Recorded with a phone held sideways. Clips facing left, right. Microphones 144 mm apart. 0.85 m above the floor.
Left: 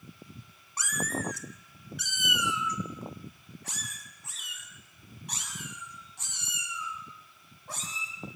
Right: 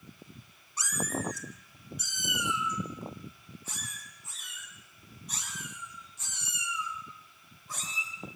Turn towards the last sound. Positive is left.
turn(degrees=65)  # may be behind; listen again after turning